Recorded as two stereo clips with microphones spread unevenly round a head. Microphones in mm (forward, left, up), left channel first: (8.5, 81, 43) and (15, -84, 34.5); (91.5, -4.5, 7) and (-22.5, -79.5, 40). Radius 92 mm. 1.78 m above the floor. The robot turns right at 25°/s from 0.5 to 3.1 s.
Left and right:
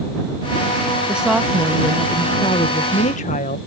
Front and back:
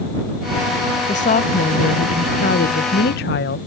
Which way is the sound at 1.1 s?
5° right.